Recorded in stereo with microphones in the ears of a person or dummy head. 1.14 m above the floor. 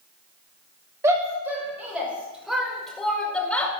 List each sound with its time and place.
1.0 s a shout: 15° right (ahead or behind), 5.5 m; by 3.7 s 10° left (ahead or behind), 5 m